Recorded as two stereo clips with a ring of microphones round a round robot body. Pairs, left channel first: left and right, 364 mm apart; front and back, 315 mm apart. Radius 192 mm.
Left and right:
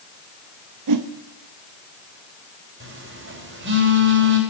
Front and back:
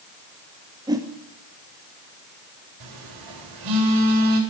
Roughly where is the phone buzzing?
Behind right.